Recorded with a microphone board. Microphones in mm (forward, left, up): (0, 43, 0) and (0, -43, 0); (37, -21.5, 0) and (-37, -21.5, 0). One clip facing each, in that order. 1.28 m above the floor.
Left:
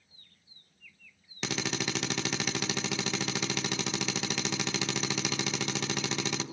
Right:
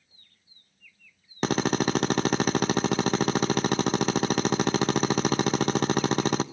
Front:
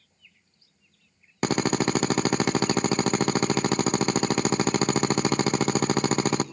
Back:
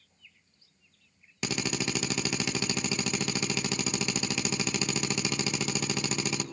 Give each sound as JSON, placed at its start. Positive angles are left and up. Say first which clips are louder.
{"t": 1.4, "sound": "a drill", "louder": "right 10 dB, front 9 dB", "azimuth_deg": -45, "distance_m": 0.8}